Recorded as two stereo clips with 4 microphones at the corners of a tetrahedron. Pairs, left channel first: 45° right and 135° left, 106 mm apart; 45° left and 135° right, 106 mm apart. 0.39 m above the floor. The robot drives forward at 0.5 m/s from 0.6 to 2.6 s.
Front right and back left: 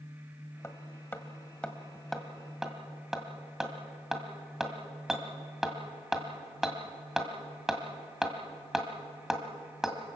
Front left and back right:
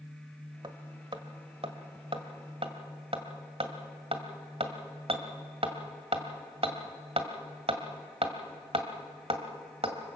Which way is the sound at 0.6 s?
105° right.